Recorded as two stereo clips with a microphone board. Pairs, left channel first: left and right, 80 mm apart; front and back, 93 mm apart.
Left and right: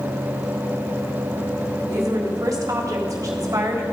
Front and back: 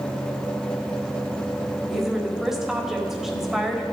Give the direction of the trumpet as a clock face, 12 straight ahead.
I don't hear a trumpet.